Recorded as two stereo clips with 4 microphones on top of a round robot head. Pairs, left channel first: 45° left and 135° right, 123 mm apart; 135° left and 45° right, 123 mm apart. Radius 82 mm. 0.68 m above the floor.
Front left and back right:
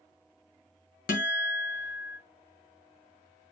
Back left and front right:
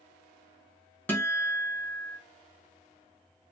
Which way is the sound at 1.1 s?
55° left.